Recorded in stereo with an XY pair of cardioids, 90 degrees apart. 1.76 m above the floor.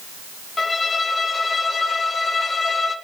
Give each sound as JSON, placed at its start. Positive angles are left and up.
{"t": 0.6, "sound": "a violin", "azimuth_deg": 35, "distance_m": 1.6}